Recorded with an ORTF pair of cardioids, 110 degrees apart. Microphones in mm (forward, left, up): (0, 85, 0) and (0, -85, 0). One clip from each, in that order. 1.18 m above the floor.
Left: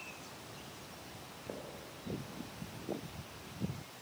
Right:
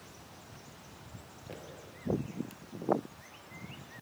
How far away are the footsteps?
About 4.5 m.